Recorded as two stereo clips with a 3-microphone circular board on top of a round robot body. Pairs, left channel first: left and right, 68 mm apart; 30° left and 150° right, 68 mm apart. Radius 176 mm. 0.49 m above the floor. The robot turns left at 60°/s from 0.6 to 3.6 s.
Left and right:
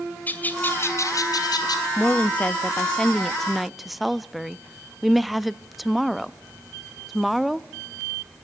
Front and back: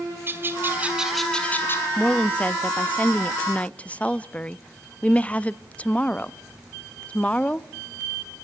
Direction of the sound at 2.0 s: 95° left.